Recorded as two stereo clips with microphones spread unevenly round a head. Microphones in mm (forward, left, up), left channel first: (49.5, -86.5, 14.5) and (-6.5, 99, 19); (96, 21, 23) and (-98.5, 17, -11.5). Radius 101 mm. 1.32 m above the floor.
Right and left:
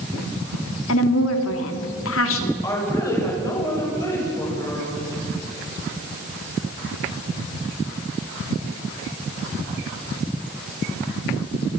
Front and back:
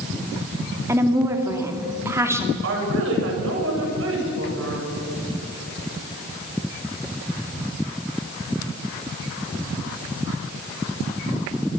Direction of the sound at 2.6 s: 150° right.